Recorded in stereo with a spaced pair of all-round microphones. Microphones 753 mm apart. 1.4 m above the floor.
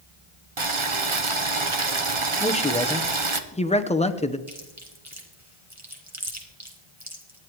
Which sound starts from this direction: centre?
A man speaking, at 2.4 s.